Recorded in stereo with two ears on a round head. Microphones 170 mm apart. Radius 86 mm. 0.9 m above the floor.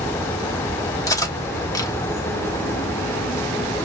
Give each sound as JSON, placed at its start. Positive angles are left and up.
{"t": 1.1, "sound": "cutlery clinking", "side_deg": 20, "distance_m": 1.0}